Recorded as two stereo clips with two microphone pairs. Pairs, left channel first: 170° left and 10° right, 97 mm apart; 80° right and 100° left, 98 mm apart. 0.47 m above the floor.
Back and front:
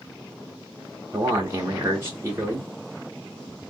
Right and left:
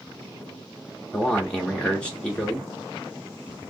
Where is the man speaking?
20° right, 0.7 m.